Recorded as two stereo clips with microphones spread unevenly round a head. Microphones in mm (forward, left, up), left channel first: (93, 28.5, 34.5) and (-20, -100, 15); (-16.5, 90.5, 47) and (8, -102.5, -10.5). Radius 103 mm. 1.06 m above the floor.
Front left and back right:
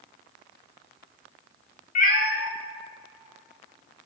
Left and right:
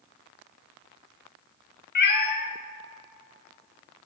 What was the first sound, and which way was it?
A cat meowing, 95° left.